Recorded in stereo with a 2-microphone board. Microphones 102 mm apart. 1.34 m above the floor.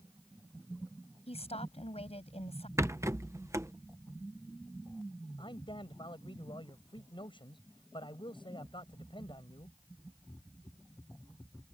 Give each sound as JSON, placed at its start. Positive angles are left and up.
{"t": 1.3, "sound": "a woman speaking", "side_deg": 85}
{"t": 2.8, "sound": "a rattle", "side_deg": -30}
{"t": 5.4, "sound": "a man speaking", "side_deg": 55}